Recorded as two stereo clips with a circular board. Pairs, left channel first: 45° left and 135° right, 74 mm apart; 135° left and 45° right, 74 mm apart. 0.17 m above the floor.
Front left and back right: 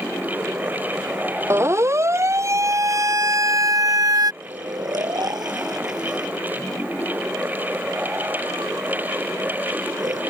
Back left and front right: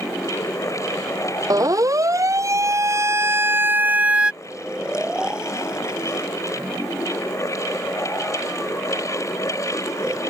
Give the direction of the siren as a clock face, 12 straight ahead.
3 o'clock.